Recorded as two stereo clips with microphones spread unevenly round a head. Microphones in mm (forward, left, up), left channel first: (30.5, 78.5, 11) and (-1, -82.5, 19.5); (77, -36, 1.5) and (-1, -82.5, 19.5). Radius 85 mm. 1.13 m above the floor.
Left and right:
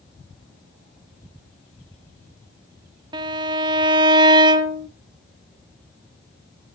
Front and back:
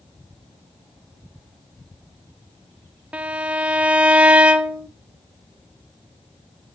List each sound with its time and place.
3.1 s a violin: 120° right, 1.0 m